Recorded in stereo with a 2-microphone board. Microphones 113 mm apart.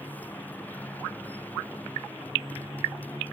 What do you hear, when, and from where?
0.0 s a motorcycle: 15° left (ahead or behind)